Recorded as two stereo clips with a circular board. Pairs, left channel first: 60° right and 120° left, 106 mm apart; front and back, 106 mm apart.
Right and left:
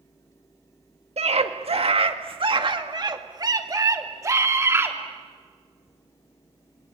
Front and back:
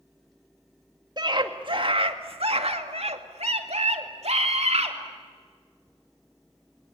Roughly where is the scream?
Behind left.